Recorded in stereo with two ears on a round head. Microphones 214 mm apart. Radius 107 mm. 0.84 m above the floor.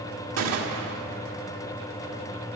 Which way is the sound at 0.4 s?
70° right (ahead or behind).